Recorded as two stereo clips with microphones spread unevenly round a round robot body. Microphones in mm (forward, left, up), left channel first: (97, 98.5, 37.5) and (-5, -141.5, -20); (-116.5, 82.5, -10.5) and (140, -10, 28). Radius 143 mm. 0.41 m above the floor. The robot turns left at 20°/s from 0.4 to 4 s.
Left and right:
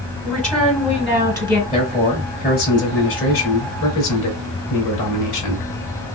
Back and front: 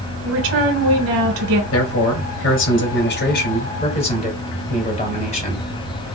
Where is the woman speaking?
25° right, 2 m; by 1.6 s 50° right, 2 m.